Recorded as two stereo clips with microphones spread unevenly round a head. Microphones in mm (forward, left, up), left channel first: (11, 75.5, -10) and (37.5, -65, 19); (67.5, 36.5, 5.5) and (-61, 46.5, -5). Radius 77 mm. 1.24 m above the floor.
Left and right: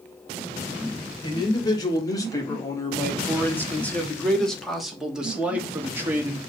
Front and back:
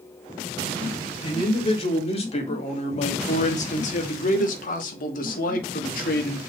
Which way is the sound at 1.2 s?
40° left.